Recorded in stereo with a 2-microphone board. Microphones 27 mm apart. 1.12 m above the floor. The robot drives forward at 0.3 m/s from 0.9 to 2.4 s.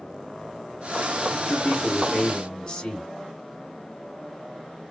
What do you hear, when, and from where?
1.4 s a man speaking: 45° left (ahead or behind), 1.9 m; by 3.1 s 40° left (ahead or behind), 2 m